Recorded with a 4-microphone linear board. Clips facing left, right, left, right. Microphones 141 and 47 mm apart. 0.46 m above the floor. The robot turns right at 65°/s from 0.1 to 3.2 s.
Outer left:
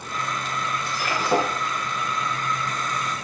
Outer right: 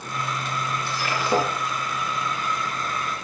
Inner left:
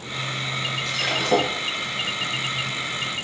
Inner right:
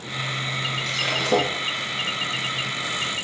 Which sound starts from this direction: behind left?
Breaking glass, at 0.8 s.